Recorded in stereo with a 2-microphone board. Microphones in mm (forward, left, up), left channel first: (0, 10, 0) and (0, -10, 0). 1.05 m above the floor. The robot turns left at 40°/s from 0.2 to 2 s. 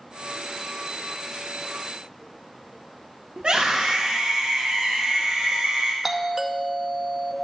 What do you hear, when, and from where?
3.4 s a scream: 50° right (ahead or behind), 1.2 m
6.0 s a doorbell: 20° right (ahead or behind), 0.8 m